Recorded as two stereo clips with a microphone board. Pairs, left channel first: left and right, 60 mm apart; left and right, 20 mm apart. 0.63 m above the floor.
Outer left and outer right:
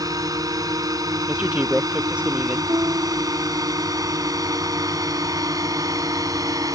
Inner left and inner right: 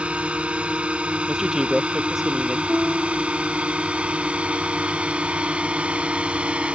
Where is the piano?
65° right (ahead or behind).